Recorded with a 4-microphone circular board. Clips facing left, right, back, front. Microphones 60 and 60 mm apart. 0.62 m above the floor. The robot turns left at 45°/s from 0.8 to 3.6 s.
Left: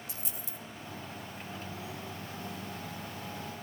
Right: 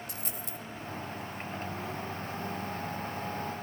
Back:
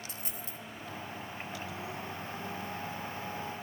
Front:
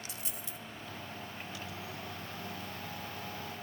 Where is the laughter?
No laughter in this recording.